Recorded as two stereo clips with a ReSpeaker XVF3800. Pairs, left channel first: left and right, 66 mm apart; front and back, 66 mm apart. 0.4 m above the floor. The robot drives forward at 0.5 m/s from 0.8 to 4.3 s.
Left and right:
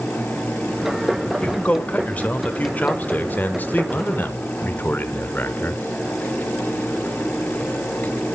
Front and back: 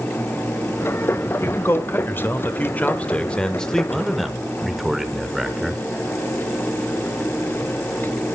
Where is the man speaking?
30° left, 2 m; by 5.8 s 95° left, 1.6 m.